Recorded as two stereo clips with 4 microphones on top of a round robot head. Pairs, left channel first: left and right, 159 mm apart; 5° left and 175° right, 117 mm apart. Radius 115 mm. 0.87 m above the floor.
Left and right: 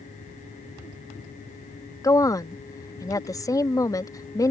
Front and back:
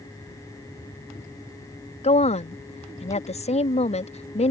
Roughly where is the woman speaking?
Ahead.